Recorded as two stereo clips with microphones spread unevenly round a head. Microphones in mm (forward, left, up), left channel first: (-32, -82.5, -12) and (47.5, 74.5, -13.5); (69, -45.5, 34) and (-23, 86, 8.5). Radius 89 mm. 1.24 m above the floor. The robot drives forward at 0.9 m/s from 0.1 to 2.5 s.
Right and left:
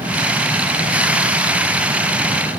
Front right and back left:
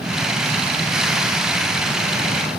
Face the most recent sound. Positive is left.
No sound to turn to.